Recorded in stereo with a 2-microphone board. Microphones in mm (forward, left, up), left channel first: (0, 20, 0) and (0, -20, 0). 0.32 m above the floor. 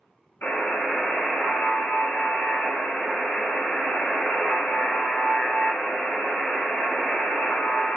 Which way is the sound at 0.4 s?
80° left.